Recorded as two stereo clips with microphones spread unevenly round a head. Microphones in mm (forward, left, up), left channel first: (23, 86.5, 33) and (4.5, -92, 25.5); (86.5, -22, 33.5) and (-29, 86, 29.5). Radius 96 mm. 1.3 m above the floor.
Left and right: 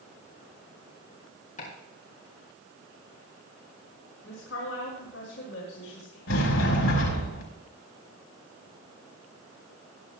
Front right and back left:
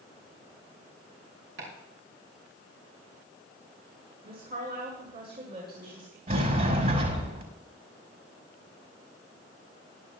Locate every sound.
1.6 s chopping: 140° left, 6 m
4.2 s a woman speaking: 115° left, 5.5 m
6.3 s a sliding door: 100° left, 4.5 m